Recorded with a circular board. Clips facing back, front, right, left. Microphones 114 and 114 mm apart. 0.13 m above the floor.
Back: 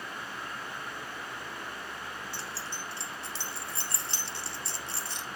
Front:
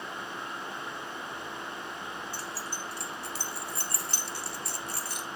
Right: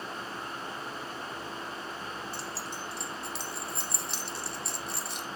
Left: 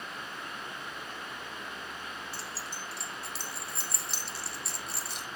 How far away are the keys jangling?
About 0.8 m.